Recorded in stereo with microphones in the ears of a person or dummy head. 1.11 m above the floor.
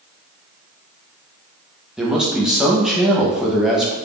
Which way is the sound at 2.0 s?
5° right (ahead or behind).